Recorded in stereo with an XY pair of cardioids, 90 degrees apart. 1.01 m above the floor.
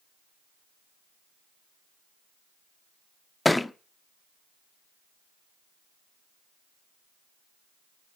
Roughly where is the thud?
Ahead.